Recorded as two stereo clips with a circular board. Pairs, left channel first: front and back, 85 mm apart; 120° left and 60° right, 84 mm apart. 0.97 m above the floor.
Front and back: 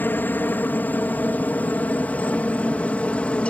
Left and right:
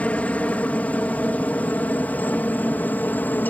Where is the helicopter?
55° left; by 3.5 s 65° left.